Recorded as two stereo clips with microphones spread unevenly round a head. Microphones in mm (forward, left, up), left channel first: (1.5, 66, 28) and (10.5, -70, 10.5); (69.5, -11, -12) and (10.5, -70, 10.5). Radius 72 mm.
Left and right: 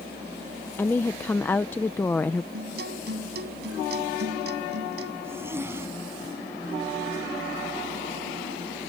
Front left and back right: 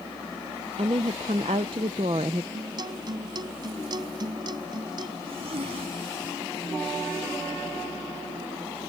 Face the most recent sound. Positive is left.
turn(degrees=-160)